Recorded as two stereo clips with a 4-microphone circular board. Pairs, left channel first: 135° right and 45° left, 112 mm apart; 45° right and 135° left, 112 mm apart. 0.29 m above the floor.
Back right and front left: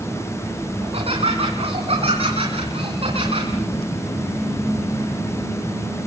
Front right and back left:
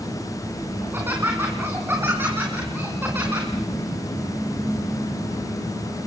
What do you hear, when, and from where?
0.8 s laughter: 65° left, 3.5 m